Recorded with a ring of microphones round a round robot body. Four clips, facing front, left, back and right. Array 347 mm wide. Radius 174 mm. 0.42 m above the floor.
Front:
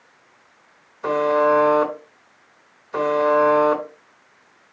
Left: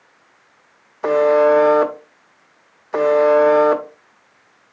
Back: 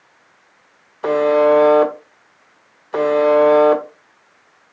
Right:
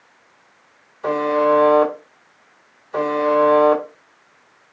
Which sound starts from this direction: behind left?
A buzzer, at 1.0 s.